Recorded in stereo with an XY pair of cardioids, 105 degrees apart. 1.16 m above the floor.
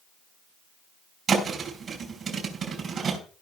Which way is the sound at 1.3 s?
50° right.